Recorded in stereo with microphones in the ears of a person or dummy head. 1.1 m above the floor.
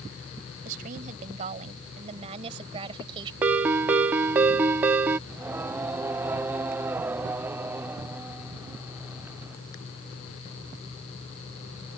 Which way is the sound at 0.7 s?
45° right (ahead or behind).